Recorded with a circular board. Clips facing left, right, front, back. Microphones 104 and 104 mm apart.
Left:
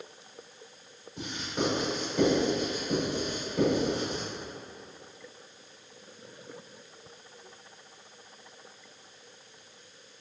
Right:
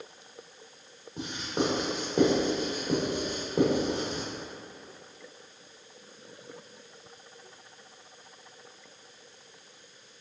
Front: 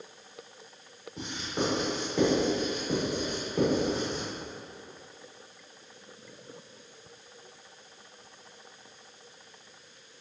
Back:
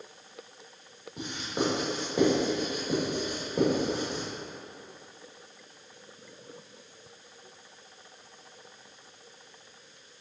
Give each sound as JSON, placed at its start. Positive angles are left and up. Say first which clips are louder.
{"t": 1.2, "sound": "writing", "louder": "right 2 dB, back 1 dB", "azimuth_deg": -105, "distance_m": 1.6}